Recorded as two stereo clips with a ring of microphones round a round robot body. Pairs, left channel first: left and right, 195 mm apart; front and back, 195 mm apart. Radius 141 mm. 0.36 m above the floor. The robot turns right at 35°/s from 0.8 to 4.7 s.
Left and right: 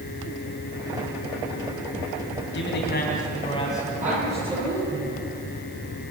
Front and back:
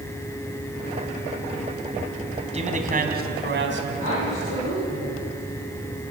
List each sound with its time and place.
2.5 s a man speaking: 125° left, 3.5 m; by 3.9 s 170° left, 3.5 m
4.0 s a woman speaking: 45° right, 10 m; by 5.3 s 20° right, 10 m